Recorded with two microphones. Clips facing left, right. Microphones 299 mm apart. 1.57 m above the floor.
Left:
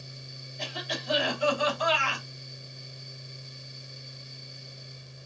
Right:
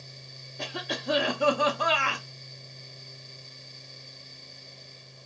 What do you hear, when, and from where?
0.6 s a cough: 60° right (ahead or behind), 0.7 m